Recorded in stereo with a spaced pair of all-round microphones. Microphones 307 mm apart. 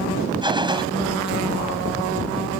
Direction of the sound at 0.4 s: 15° right (ahead or behind).